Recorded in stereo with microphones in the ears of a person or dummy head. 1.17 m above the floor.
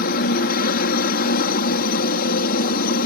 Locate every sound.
0.0 s a helicopter: 50° left (ahead or behind)